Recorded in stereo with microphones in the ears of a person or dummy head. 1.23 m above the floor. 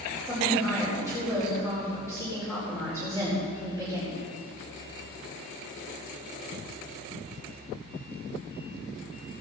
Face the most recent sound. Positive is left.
turn(degrees=10)  # may be behind; listen again after turning